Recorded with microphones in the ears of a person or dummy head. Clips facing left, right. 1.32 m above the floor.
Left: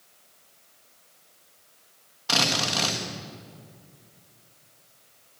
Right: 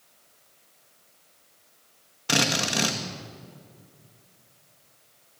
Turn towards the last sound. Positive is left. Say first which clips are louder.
# right 2 dB
turn(degrees=-30)  # may be behind; listen again after turning